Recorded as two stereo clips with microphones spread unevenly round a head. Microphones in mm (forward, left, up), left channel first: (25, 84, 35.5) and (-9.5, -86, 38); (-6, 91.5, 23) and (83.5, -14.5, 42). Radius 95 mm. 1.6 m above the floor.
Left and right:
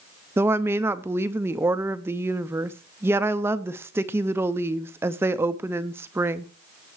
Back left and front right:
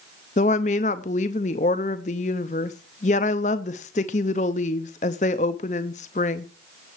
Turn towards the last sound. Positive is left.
turn(degrees=180)